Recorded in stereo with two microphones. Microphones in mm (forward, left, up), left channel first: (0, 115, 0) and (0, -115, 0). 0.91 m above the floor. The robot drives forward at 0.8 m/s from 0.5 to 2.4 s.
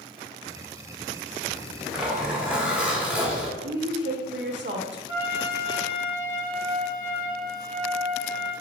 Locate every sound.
1.5 s a zipper: 5° right (ahead or behind), 3 m
3.6 s a woman speaking: 50° right (ahead or behind), 1.8 m
5.1 s a trumpet: 60° left (ahead or behind), 2.5 m